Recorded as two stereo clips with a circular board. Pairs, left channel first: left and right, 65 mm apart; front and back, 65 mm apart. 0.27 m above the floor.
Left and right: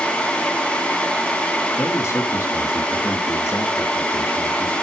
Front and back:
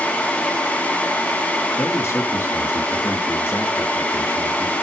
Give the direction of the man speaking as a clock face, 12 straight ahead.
10 o'clock.